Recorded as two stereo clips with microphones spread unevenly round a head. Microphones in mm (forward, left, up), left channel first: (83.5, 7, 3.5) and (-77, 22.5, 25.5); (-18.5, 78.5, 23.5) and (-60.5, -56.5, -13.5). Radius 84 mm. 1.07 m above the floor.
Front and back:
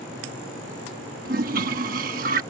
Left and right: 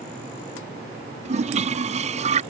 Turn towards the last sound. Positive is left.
turn(degrees=-145)